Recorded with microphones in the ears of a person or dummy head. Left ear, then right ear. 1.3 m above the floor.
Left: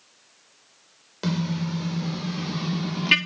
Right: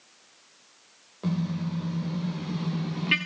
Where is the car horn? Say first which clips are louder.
Left 4 dB; 65° left (ahead or behind), 3 m; by 3.2 s 30° left (ahead or behind), 1.7 m.